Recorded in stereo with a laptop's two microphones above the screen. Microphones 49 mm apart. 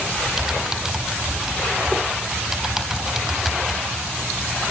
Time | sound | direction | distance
0.4 | typing on a keyboard | 5° right (ahead or behind) | 4 m